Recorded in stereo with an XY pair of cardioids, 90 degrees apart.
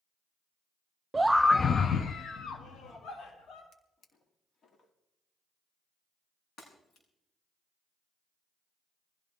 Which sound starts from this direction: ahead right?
A scream, at 1.1 s.